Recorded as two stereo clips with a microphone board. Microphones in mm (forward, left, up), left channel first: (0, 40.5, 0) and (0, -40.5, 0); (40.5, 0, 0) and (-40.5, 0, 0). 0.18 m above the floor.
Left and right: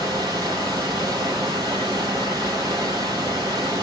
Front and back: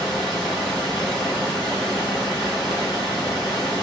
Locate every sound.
0.0 s running water: 40° right, 3 m